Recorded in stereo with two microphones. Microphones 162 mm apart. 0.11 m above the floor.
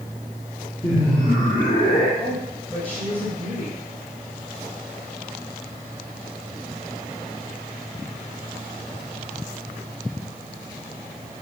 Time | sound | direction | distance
0.8 | laughter | 20° left (ahead or behind) | 2 m
2.2 | a woman speaking | 10° left (ahead or behind) | 5 m